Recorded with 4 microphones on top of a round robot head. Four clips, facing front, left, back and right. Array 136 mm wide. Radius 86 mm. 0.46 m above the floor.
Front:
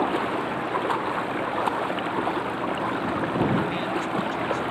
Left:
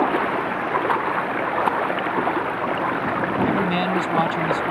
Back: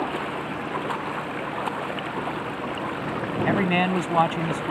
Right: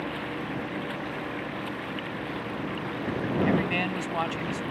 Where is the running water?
75° left.